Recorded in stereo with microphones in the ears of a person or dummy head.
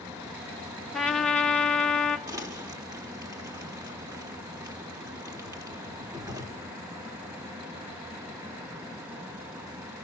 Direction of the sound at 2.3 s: 20° right (ahead or behind).